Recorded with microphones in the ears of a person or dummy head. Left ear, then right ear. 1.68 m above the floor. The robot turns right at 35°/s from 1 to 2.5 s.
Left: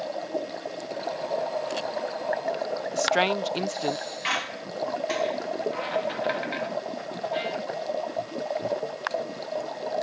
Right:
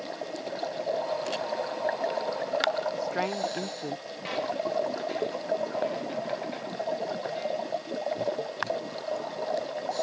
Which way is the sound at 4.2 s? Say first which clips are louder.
Even; 45° left (ahead or behind).